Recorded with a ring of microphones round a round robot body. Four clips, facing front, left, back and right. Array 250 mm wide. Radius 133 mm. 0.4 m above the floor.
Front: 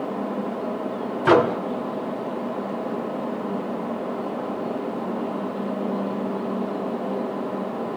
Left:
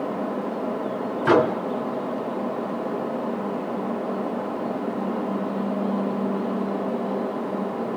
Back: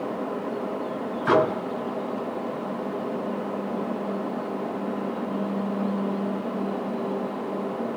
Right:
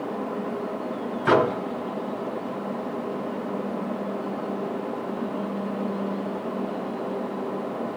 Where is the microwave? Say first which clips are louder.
Left 2 dB, front 4 dB; straight ahead, 1.9 m.